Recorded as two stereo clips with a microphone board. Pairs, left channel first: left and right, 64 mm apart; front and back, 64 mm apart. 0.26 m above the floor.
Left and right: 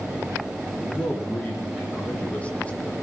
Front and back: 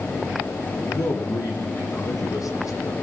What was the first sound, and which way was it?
A man speaking, 20° left.